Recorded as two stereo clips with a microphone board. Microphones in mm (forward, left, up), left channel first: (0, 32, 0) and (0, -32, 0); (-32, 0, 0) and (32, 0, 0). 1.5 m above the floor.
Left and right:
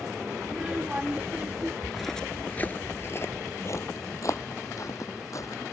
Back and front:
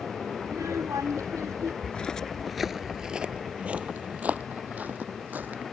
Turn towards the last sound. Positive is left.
turn(degrees=60)